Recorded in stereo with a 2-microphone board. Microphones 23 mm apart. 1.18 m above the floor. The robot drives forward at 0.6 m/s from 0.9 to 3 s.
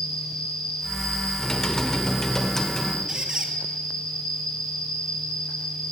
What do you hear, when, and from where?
0.0 s an insect: 40° left (ahead or behind), 6.5 m; by 5.9 s 35° left (ahead or behind), 7.5 m
1.4 s typing on a keyboard: 25° left (ahead or behind), 0.9 m; by 3.0 s 15° left (ahead or behind), 1.2 m
3.1 s a squeak: 35° right (ahead or behind), 1.6 m